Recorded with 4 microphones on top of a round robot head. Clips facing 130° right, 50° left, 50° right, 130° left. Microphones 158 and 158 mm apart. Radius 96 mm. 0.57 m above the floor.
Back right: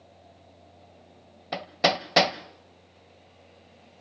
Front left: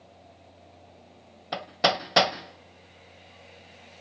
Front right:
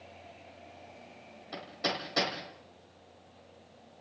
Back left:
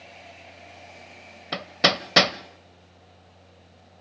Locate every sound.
1.5 s hammering: 145° left, 1.1 m